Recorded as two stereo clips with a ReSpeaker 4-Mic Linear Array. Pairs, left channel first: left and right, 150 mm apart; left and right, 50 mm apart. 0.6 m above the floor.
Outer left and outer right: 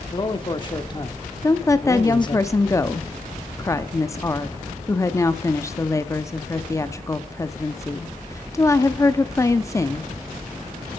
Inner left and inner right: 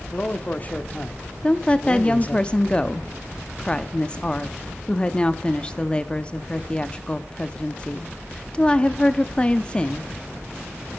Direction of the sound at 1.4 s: 20° left (ahead or behind).